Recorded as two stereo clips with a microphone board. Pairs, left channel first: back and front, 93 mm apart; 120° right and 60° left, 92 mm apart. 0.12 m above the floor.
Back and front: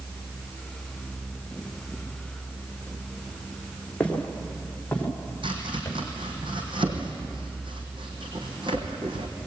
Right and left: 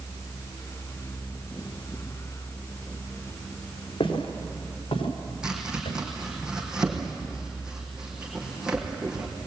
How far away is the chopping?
About 4 m.